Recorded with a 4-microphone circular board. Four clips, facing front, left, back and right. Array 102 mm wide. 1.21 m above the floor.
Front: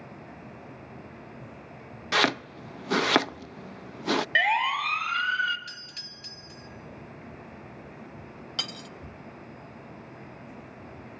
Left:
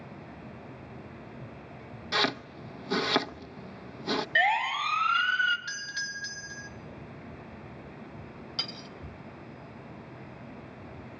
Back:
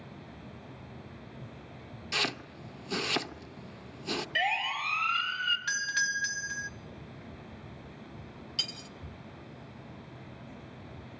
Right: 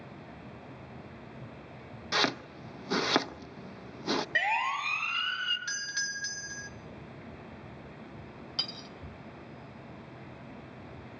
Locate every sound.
2.1 s chopping: 5° right, 0.6 m
4.3 s a siren: 15° right, 4 m; by 5.6 s 5° right, 5 m
5.7 s a doorbell: 165° right, 1.4 m
8.6 s cutlery clinking: straight ahead, 1.1 m